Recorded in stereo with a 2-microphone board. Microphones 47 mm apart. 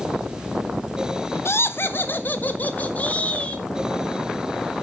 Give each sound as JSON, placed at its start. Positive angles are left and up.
{"t": 1.4, "sound": "laughter", "side_deg": 55, "distance_m": 1.1}